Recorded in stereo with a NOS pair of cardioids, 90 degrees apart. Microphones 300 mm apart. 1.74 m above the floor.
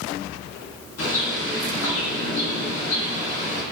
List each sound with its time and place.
1.0 s a bird: 55° left, 5 m